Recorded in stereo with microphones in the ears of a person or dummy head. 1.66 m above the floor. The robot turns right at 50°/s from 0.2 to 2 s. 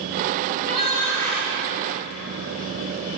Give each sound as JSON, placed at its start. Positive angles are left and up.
{"t": 0.5, "sound": "a shout", "azimuth_deg": 125, "distance_m": 6.5}